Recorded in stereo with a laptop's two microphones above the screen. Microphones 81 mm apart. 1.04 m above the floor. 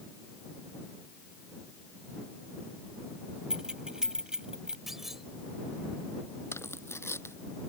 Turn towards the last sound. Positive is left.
turn(degrees=30)  # may be behind; listen again after turning